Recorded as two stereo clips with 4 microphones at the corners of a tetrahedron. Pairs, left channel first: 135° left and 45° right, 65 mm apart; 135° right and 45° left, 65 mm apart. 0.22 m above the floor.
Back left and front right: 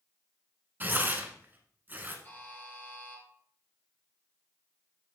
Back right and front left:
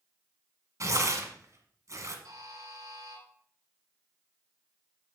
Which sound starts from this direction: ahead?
Tearing paper, at 0.8 s.